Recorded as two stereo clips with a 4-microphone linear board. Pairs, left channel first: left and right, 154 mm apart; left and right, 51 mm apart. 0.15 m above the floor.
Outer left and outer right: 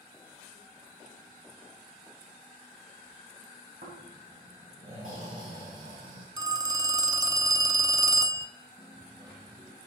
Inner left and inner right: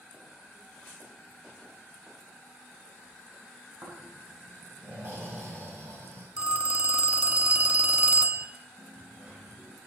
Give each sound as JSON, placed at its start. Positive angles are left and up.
{"t": 3.8, "sound": "snoring", "side_deg": -60, "distance_m": 6.0}
{"t": 6.4, "sound": "a phone ringing", "side_deg": -25, "distance_m": 0.7}
{"t": 8.8, "sound": "a dropped coin", "side_deg": -30, "distance_m": 3.0}